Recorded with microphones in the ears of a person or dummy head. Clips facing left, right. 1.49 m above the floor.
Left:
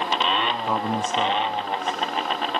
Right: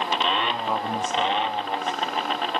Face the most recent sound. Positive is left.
turn(degrees=10)  # may be behind; listen again after turning